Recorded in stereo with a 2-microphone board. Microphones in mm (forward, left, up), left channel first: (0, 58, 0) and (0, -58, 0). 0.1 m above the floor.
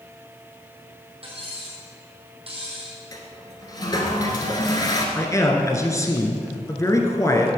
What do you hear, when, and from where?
1.2 s cutlery clinking: 50° right (ahead or behind), 2.5 m
3.1 s a toilet flushing: 30° left (ahead or behind), 1.3 m
5.2 s a man speaking: 25° left (ahead or behind), 1.1 m